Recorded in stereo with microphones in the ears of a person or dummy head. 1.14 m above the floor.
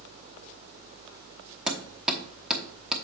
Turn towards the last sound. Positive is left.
turn(degrees=-5)  # may be behind; listen again after turning